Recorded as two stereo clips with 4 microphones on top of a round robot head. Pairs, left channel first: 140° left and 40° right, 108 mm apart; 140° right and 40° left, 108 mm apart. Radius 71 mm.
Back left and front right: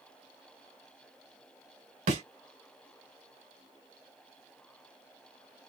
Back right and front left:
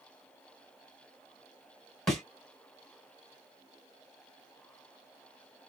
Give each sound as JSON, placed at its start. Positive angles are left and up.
{"t": 2.1, "sound": "a thud", "azimuth_deg": -55, "distance_m": 1.9}